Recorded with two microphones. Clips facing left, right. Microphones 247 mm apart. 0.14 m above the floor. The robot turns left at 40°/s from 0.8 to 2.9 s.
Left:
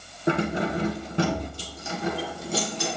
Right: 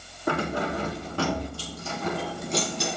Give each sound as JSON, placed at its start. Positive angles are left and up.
{"t": 0.3, "sound": "keys jangling", "side_deg": 20, "distance_m": 1.0}